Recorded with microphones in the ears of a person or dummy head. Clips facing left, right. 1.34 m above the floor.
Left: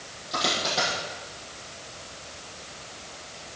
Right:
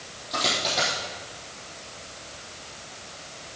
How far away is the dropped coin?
About 6 m.